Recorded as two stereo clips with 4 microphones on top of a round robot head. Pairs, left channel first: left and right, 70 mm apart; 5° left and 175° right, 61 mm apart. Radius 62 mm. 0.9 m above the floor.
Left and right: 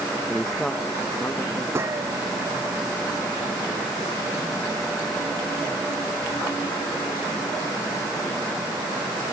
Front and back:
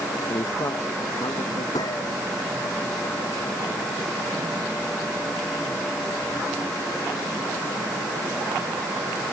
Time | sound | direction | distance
0.3 | a man speaking | 5° right | ?
1.8 | a gunshot | 40° right | ?